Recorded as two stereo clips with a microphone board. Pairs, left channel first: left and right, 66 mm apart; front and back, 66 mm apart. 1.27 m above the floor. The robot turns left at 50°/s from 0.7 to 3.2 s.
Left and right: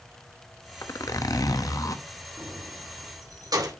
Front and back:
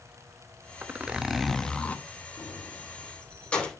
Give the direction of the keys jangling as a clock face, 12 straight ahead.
1 o'clock.